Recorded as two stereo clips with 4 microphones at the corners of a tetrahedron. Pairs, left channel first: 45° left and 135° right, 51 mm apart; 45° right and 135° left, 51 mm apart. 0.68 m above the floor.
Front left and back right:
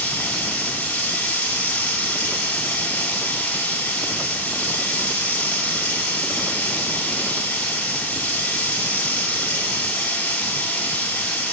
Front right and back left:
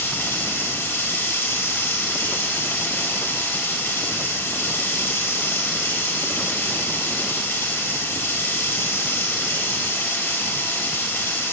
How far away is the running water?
About 2.5 m.